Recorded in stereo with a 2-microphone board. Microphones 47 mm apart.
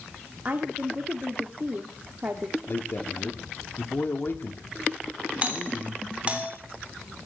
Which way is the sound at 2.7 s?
50° left (ahead or behind).